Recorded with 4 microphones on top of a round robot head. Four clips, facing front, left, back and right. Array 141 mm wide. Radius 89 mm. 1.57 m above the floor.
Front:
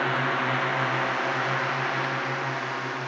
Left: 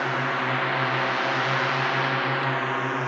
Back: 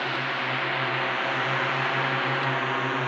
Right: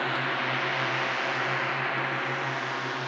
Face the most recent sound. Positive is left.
turn(degrees=130)